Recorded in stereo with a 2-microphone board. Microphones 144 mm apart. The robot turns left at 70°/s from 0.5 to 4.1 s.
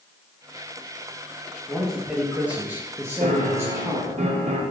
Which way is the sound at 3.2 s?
65° right.